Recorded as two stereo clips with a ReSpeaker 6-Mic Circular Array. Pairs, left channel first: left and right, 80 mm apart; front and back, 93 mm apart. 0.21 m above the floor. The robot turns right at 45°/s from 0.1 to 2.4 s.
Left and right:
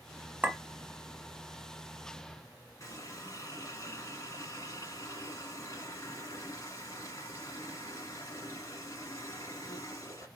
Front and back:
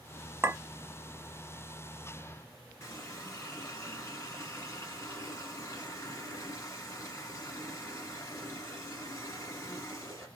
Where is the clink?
145° right, 0.7 m; by 0.6 s 140° right, 0.7 m.